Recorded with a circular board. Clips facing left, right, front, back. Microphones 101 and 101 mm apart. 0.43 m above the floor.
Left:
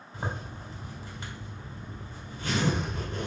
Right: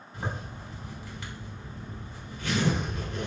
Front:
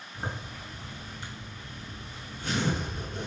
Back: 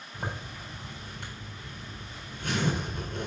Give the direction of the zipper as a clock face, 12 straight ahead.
7 o'clock.